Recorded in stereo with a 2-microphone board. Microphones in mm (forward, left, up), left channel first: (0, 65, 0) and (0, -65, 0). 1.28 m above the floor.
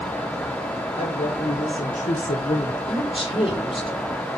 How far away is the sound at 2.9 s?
About 4 m.